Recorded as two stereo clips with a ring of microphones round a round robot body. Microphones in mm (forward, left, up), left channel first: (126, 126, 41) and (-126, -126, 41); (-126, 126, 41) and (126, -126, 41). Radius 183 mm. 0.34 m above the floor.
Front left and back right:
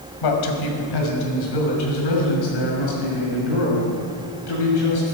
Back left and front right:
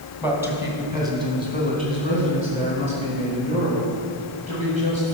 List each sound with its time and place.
0.2 s a man speaking: 40° left, 2 m; by 5.1 s 25° left, 7 m